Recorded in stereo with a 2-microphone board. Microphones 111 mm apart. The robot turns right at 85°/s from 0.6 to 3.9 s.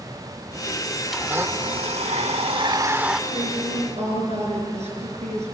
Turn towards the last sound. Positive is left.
turn(degrees=-85)